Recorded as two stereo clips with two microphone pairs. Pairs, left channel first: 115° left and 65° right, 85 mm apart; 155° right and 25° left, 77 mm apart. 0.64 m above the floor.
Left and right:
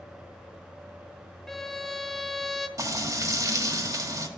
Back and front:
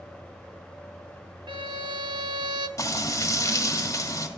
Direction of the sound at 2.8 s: 115° right.